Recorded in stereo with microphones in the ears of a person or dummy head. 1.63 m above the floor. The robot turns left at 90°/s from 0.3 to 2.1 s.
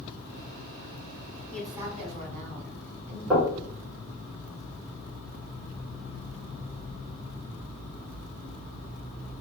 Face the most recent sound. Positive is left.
turn(degrees=-5)  # may be behind; listen again after turning